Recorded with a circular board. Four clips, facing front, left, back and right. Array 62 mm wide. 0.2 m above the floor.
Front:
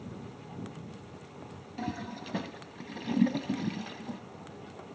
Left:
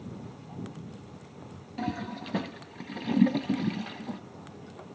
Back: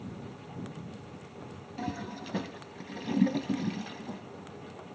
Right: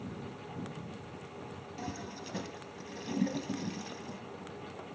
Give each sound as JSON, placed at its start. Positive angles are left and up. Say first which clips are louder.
{"t": 1.8, "sound": "a toilet flushing", "louder": "left 9 dB, even", "azimuth_deg": 85, "distance_m": 0.6}